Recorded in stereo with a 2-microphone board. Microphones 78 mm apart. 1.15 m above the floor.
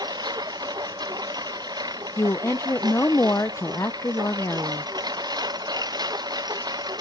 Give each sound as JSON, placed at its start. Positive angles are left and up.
{"t": 0.0, "sound": "a lawn mower", "side_deg": -60}
{"t": 2.2, "sound": "a woman speaking", "side_deg": 35}